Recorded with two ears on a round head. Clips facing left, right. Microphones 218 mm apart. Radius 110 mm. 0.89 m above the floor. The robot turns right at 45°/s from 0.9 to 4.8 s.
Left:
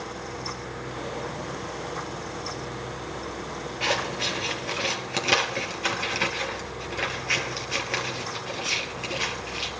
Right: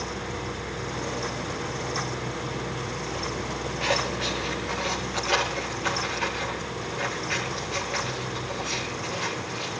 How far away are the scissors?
About 4.5 m.